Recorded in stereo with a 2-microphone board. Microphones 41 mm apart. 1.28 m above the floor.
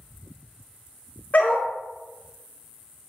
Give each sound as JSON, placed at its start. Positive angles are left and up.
{"t": 1.3, "sound": "a dog barking", "side_deg": 45, "distance_m": 1.1}